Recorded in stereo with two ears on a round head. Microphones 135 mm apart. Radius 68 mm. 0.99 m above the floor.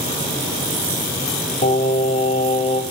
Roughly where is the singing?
Left.